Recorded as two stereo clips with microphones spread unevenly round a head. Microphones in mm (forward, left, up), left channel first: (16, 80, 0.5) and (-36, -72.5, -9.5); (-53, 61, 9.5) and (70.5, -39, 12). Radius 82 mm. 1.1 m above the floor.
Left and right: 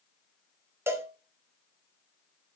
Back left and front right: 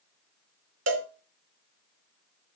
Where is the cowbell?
30° right, 3 m.